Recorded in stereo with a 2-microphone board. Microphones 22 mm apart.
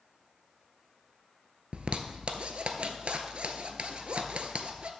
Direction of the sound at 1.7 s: 60° right (ahead or behind).